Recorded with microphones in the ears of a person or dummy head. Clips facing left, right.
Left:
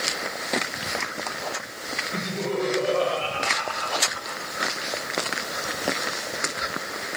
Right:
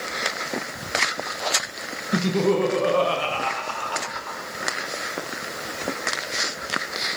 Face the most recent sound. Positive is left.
turn(degrees=-60)  # may be behind; listen again after turning